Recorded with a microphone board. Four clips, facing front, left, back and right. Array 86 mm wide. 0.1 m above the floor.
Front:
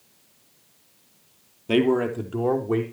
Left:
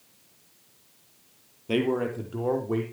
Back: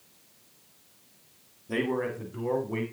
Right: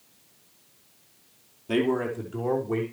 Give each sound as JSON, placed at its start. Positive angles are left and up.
{"t": 1.7, "sound": "a man speaking", "azimuth_deg": 5, "distance_m": 2.5}